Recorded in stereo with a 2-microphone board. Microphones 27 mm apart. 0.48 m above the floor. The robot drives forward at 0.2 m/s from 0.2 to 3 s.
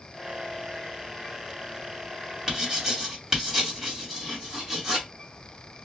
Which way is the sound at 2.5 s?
20° right (ahead or behind).